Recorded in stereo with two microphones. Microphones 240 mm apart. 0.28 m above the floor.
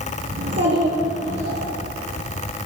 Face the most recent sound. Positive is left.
turn(degrees=-45)  # may be behind; listen again after turning